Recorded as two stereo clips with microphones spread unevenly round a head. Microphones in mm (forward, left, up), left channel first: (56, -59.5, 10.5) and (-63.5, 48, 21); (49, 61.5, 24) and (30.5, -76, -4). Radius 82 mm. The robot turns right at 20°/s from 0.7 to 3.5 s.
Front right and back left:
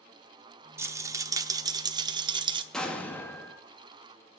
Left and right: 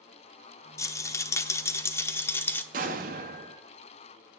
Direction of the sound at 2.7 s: 130° right.